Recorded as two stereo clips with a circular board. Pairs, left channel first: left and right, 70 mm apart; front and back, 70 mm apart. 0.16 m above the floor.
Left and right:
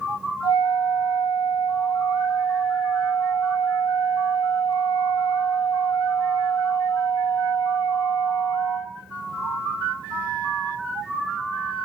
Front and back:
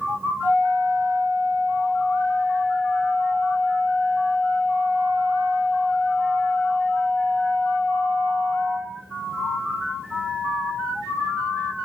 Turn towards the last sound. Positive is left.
turn(degrees=60)